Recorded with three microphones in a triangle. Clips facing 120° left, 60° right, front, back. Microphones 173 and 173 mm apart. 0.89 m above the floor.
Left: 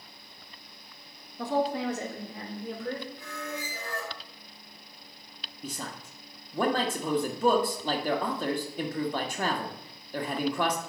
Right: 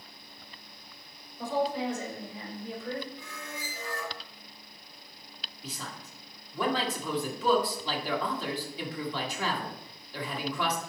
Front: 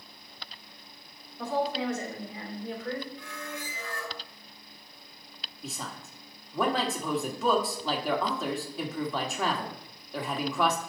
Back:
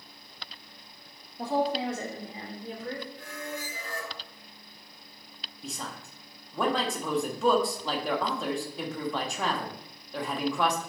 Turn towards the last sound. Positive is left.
turn(degrees=90)